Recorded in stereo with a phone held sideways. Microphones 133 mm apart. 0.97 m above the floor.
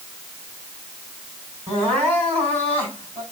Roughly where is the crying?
Right.